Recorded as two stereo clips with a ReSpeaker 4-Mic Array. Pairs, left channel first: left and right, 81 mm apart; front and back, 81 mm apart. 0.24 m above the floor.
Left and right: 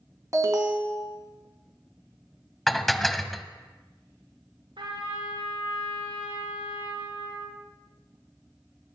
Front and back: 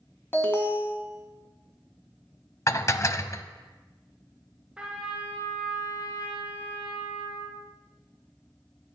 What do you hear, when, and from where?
0.3 s an alarm: 55° right, 2 m
2.7 s dishes clattering: straight ahead, 0.8 m
4.8 s a trumpet: 100° right, 9 m